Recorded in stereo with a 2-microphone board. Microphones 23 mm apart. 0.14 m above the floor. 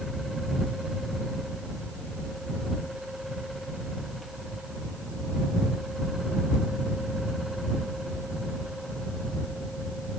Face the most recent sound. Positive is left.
No sound to turn to.